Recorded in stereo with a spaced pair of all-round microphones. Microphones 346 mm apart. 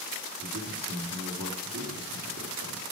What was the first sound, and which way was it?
A man speaking, 45° right (ahead or behind).